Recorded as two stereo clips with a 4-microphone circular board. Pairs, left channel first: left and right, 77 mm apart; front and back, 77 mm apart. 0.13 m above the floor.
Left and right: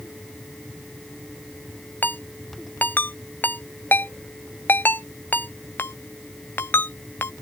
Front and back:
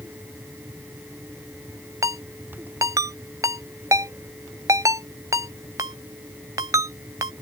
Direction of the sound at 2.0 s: 150° left.